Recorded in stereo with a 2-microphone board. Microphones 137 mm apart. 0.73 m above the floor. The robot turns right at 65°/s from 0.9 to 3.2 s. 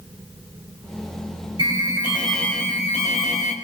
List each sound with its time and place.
1.6 s an alarm: 45° right, 5 m; by 3.5 s 60° left, 5 m